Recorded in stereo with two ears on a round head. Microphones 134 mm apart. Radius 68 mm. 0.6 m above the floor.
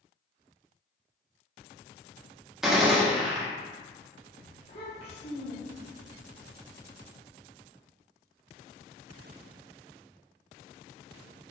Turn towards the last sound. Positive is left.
turn(degrees=40)  # may be behind; listen again after turning